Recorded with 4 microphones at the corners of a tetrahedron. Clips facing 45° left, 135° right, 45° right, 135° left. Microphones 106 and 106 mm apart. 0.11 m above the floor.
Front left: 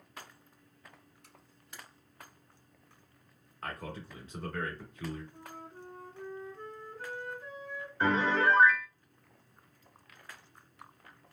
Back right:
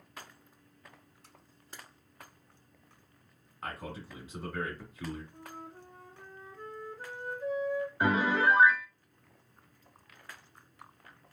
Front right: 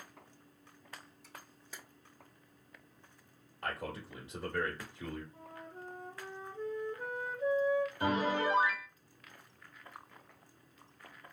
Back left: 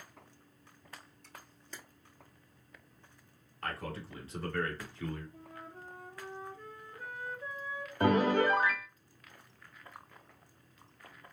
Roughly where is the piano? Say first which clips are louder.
Front left 1 dB, back left 5 dB; behind left.